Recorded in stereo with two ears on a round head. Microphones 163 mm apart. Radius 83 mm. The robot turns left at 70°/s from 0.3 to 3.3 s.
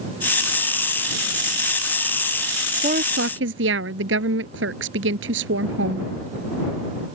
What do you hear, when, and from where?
2.8 s a woman speaking: 35° right; by 6.1 s 70° right